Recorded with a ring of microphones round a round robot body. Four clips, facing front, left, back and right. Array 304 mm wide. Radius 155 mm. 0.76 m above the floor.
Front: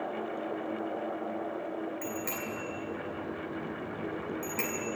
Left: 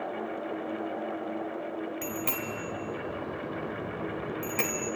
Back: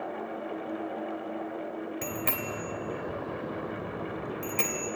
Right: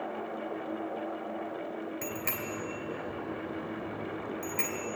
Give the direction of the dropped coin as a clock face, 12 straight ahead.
I don't hear a dropped coin.